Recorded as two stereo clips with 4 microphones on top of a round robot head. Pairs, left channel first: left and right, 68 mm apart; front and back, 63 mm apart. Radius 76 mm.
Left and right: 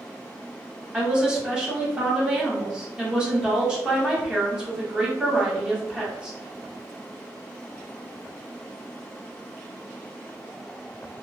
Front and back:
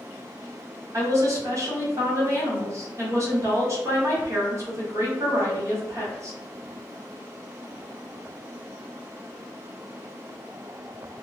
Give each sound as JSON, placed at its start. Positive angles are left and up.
{"t": 0.9, "sound": "a woman speaking", "azimuth_deg": -165, "distance_m": 1.3}